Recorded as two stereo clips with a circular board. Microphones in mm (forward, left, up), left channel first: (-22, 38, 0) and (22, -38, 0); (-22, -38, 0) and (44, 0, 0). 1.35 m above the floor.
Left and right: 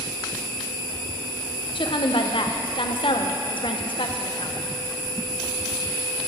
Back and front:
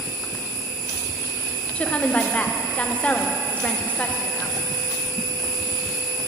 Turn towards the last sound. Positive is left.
turn(degrees=140)